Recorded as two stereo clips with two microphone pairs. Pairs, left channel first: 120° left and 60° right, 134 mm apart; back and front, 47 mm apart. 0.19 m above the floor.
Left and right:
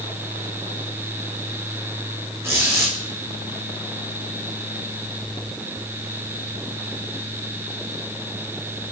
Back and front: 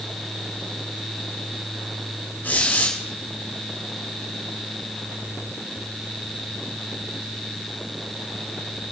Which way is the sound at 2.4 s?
130° right.